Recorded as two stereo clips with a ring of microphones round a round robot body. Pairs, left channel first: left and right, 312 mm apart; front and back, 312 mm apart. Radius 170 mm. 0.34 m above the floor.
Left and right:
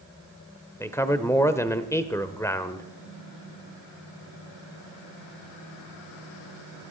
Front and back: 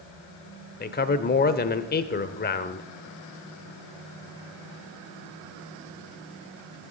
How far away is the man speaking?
About 0.9 m.